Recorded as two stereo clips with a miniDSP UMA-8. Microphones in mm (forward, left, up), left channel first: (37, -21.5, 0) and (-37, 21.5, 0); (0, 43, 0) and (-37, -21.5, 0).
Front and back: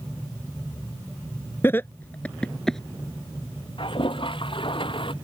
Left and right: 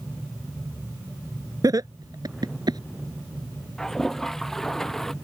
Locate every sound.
1.6 s laughter: 90° right; by 2.8 s 115° right
3.8 s a toilet flushing: 25° right